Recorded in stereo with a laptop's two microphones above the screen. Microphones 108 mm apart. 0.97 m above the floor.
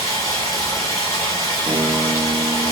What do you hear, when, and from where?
0.0 s running water: 35° left (ahead or behind), 1.0 m
1.7 s a guitar: 45° right (ahead or behind), 0.5 m